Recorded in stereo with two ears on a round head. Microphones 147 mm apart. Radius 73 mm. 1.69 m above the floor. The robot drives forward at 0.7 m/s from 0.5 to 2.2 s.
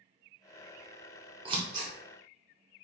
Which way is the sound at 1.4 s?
30° right (ahead or behind).